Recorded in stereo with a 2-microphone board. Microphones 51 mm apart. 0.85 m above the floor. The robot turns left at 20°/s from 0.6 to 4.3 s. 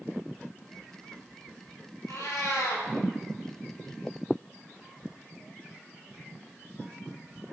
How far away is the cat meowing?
About 2 m.